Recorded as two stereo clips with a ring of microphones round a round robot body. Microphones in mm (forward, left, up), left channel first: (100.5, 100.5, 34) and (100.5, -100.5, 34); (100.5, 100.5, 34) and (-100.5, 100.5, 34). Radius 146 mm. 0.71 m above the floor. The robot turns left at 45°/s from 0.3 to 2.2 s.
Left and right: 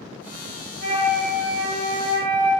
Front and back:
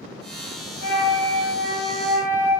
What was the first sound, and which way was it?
A flute, 20° left.